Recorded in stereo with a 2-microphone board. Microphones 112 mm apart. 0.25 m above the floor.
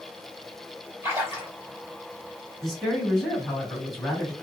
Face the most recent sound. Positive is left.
turn(degrees=0)  # may be behind; listen again after turning